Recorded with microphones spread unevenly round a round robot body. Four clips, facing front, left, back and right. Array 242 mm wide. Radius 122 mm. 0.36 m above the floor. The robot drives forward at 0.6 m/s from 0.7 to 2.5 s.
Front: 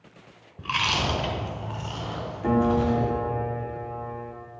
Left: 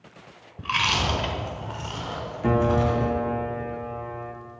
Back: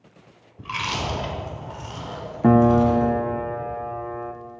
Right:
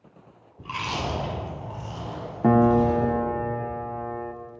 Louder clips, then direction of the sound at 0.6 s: Left 4 dB, front 1 dB; 65° left.